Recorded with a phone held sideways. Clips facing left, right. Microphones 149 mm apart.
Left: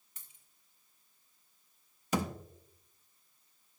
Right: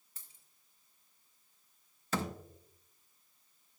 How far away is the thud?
About 0.5 m.